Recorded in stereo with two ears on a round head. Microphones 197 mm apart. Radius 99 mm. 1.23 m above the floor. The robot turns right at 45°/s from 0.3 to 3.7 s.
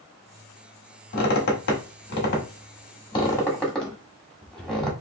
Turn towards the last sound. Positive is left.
turn(degrees=5)  # may be behind; listen again after turning